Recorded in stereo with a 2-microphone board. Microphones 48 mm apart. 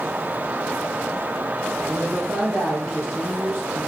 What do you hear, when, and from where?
1.9 s a man speaking: 30° right (ahead or behind), 3.5 m